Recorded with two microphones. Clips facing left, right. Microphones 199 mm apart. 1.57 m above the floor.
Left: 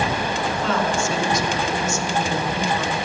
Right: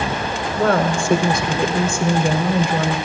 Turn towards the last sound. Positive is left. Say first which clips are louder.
# right 7 dB
turn(degrees=-55)  # may be behind; listen again after turning